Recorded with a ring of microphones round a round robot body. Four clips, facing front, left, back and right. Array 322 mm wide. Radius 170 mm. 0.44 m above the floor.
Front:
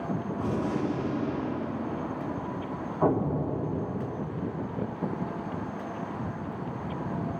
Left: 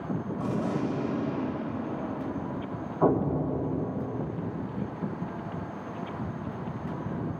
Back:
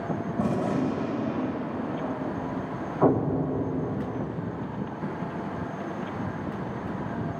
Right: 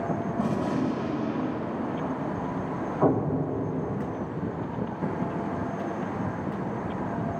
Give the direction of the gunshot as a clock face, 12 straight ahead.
6 o'clock.